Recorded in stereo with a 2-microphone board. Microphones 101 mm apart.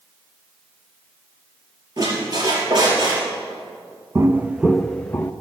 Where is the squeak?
45° right (ahead or behind), 4.5 m.